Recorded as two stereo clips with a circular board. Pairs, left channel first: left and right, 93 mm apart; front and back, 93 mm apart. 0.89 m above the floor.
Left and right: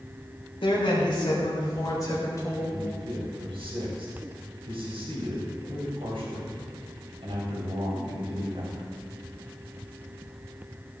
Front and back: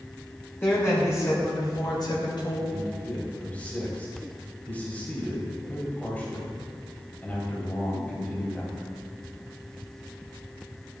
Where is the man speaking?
75° right, 3.5 m.